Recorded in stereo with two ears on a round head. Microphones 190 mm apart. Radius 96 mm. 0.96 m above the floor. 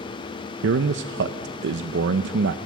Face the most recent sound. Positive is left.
turn(degrees=-55)  # may be behind; listen again after turning